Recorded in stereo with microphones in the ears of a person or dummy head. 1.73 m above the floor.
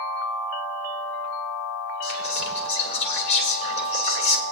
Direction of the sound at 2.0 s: 85° left.